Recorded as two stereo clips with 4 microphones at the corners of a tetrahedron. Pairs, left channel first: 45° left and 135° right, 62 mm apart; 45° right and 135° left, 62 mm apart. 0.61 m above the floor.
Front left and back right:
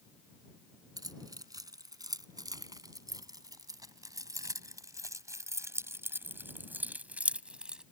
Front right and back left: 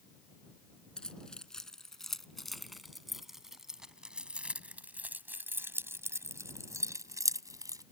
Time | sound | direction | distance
1.0 | keys jangling | 125° right | ?